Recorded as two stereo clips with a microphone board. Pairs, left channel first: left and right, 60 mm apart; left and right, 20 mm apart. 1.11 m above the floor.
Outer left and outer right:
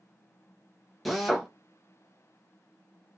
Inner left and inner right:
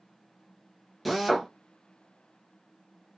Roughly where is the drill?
Centre.